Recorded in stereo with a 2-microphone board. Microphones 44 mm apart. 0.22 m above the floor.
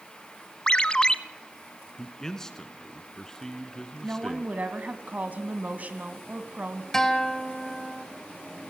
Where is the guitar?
10° left (ahead or behind), 1.9 m.